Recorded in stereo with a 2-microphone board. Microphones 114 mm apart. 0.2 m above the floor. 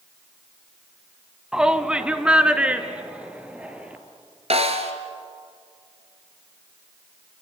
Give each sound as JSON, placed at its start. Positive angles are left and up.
{"t": 1.5, "sound": "a shout", "side_deg": -5, "distance_m": 1.1}
{"t": 4.5, "sound": "a snare drum", "side_deg": -65, "distance_m": 2.0}